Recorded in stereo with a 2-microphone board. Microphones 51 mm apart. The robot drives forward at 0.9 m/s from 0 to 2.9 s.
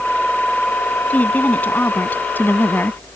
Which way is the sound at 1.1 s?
35° left (ahead or behind).